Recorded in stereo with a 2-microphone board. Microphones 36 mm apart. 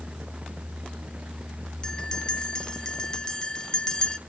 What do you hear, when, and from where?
1.8 s a bell: 20° left (ahead or behind), 0.6 m